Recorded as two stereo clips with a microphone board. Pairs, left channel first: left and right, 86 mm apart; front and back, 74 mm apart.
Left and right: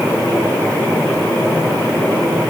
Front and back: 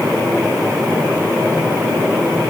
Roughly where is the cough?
No cough in this recording.